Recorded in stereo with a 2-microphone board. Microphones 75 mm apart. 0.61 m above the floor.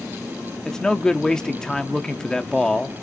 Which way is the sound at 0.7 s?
10° left (ahead or behind).